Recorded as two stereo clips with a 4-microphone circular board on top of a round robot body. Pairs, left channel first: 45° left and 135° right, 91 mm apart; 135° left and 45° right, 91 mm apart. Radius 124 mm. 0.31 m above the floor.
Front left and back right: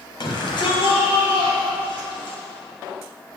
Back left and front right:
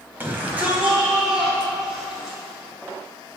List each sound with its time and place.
0.2 s a shout: 20° left, 3 m; by 2.4 s 40° left, 6 m